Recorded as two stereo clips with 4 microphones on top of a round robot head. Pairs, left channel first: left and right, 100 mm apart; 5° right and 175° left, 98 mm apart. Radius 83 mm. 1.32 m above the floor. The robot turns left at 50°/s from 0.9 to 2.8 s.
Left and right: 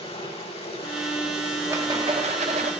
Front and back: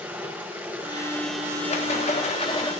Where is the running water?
100° left, 5.5 m; by 2.8 s 5° left, 5.5 m.